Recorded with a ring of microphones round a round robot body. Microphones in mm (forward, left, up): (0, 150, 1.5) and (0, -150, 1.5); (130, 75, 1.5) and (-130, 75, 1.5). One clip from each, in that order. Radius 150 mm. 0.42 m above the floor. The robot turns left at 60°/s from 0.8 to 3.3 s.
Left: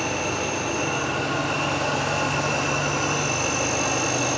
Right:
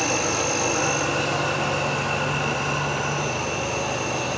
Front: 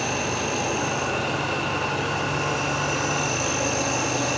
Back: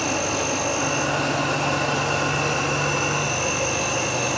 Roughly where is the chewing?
I don't hear chewing.